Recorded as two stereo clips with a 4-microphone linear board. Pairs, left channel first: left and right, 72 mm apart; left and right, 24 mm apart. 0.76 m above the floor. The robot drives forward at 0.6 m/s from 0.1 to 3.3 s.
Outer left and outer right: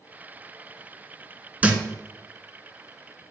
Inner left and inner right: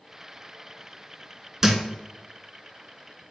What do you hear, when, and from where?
1.6 s a thud: 25° right (ahead or behind), 0.8 m; by 1.8 s 20° right (ahead or behind), 0.8 m